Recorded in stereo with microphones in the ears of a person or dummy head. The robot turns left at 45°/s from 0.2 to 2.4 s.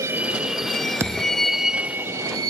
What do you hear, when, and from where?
0.0 s a vehicle: 20° right (ahead or behind)
1.0 s a thud: 10° right (ahead or behind); by 1.4 s 5° right (ahead or behind)